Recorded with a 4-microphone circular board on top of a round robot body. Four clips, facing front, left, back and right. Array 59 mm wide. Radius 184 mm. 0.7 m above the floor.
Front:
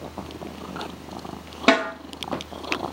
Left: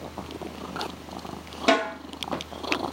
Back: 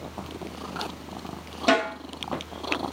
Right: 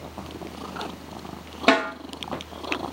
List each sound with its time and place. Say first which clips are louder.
1.7 s a snare drum: right 2 dB, front 3 dB; 35° right, 1.5 m